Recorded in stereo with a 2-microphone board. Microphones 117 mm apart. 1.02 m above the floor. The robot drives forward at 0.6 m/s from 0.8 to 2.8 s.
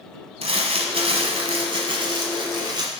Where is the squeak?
No squeak in this recording.